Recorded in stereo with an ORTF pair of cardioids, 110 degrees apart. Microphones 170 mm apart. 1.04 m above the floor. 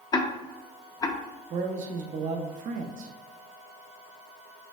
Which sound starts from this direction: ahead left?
Ticking, at 0.1 s.